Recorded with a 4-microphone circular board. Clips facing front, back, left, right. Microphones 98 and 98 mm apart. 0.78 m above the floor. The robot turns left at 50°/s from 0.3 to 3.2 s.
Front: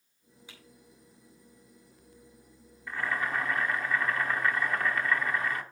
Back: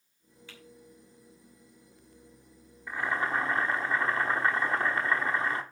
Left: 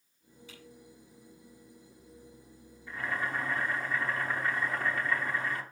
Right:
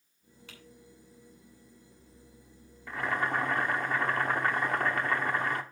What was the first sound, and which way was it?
Typing on a keyboard, 75° right.